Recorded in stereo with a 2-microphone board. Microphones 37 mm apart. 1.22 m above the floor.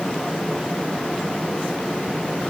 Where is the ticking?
I don't hear ticking.